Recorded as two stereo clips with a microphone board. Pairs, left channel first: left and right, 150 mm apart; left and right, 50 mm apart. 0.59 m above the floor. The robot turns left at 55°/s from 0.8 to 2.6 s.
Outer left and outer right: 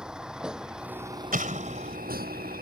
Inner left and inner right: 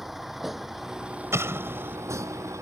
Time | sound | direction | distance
0.0 | a vehicle | 5° right (ahead or behind) | ?
1.3 | an explosion | 105° right | ?